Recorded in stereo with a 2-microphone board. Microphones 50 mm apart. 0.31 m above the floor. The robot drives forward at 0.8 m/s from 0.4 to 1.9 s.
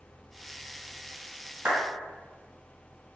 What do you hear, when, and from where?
1.6 s a clap: 30° right (ahead or behind), 1.6 m